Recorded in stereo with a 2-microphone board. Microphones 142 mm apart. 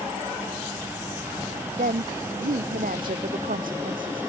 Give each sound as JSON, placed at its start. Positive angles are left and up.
{"t": 1.8, "sound": "a woman speaking", "side_deg": -80}